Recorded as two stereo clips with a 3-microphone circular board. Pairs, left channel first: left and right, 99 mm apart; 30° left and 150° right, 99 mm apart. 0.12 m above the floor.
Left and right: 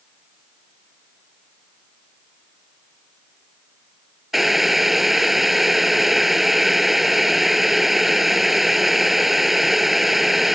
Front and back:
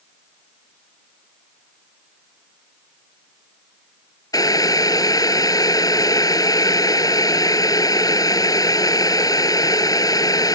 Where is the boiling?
5° right.